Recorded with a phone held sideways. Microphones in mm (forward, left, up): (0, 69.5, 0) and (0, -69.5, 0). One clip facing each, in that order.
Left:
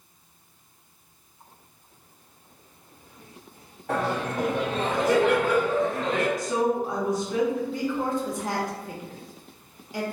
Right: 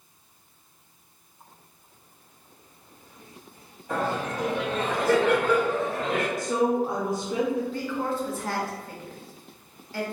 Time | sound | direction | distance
3.9 | laughter | 80° left | 0.7 m
6.4 | a woman speaking | 30° right (ahead or behind) | 0.7 m
7.7 | a woman speaking | 15° left (ahead or behind) | 0.7 m